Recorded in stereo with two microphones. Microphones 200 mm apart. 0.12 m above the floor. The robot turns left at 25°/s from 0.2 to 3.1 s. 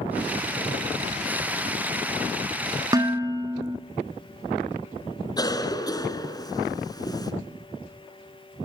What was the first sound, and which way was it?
Dishes clattering, 20° right (ahead or behind).